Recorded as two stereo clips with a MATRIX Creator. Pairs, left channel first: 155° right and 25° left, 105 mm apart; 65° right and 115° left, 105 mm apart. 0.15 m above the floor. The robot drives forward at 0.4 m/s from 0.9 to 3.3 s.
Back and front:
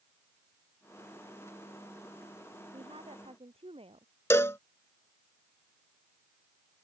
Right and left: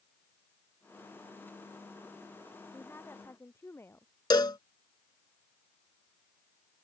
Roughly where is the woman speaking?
Ahead.